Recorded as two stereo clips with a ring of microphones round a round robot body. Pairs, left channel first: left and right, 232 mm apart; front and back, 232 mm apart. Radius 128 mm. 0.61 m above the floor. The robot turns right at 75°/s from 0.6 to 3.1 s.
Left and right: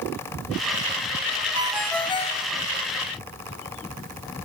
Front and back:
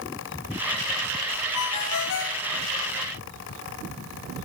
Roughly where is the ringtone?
Ahead.